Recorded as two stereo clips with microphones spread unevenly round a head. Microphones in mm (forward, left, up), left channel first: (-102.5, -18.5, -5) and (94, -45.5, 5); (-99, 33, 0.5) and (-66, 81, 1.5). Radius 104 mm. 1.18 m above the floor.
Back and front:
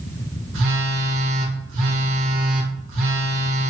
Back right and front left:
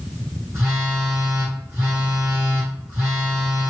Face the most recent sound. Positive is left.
turn(degrees=-10)